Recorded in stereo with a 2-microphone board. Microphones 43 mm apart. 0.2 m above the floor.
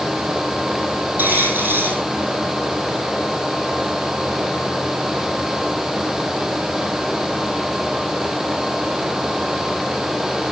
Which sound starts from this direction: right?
A dropped coin, at 1.2 s.